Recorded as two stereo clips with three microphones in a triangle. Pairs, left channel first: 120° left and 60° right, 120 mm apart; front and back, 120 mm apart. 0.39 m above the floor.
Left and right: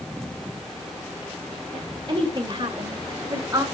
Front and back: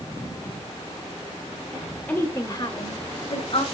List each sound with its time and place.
1.7 s a woman speaking: 90° right, 1.8 m; by 3.6 s 5° right, 2.5 m